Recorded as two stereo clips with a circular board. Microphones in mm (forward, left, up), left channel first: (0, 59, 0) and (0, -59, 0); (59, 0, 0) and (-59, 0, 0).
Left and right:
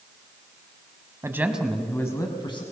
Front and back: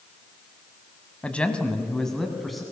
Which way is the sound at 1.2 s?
65° right.